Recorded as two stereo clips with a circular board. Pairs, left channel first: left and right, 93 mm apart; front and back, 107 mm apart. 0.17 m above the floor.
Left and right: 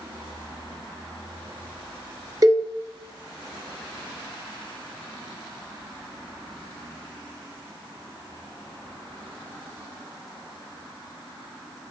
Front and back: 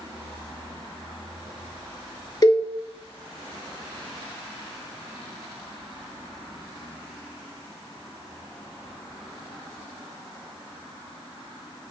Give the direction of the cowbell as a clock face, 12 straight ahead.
2 o'clock.